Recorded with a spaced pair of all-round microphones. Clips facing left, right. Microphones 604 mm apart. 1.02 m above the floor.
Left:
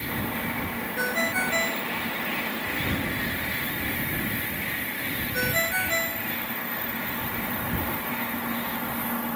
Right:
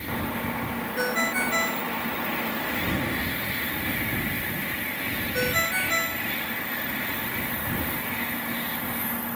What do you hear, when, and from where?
1.0 s a ringtone: 20° left (ahead or behind)